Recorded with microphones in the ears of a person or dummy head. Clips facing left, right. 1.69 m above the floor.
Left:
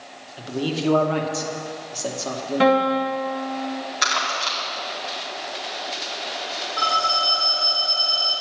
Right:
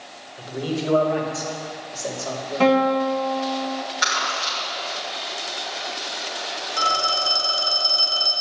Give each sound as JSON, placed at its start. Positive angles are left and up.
{"t": 0.4, "sound": "a man speaking", "side_deg": 50, "distance_m": 2.5}
{"t": 2.6, "sound": "a guitar", "side_deg": 20, "distance_m": 1.6}
{"t": 4.0, "sound": "crumpling", "side_deg": 75, "distance_m": 4.5}
{"t": 6.8, "sound": "a phone ringing", "side_deg": -35, "distance_m": 1.2}